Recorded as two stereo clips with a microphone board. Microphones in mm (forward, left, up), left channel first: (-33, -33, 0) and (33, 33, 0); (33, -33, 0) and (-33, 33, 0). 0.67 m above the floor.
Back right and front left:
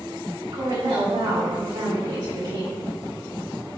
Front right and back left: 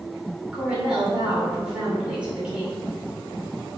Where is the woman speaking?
60° left, 2.5 m.